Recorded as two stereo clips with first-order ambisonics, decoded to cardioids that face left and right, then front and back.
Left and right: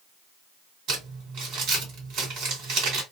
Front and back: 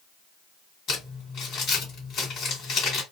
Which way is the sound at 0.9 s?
55° right.